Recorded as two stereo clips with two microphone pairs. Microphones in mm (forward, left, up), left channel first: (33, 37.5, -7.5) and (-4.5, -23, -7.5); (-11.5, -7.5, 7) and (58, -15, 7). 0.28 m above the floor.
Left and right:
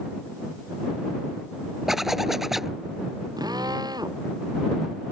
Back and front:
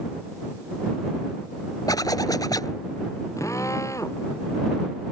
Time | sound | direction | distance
1.9 | a zipper | 150° left | ?
3.4 | a drill | 145° right | ?